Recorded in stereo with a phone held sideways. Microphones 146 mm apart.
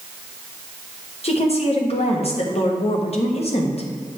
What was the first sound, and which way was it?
A woman speaking, 45° left (ahead or behind).